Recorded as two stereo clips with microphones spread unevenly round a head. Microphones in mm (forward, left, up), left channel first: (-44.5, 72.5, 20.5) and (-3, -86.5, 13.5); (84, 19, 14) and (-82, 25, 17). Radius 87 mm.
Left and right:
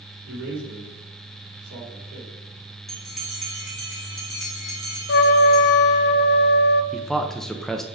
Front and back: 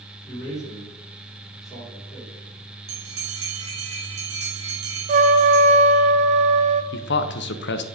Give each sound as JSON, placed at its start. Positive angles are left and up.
{"t": 0.3, "sound": "a man speaking", "azimuth_deg": -95, "distance_m": 4.0}
{"t": 2.9, "sound": "a bell", "azimuth_deg": -165, "distance_m": 2.0}
{"t": 5.1, "sound": "a trumpet", "azimuth_deg": 130, "distance_m": 0.6}
{"t": 6.9, "sound": "a man speaking", "azimuth_deg": 15, "distance_m": 0.8}